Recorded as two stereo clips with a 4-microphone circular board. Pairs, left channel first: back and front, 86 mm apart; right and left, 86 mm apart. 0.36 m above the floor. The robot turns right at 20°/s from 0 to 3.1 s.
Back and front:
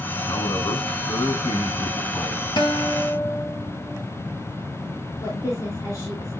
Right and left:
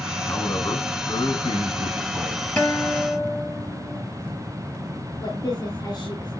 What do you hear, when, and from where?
0.3 s a man speaking: 155° right, 3.5 m; by 2.5 s 110° right, 3.5 m
2.6 s a guitar: 165° right, 3 m; by 4.0 s 155° right, 3 m
5.2 s a woman speaking: 130° right, 4.5 m